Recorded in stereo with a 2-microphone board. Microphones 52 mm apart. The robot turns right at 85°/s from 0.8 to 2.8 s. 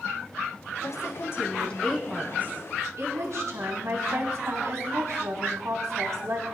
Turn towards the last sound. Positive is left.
turn(degrees=-110)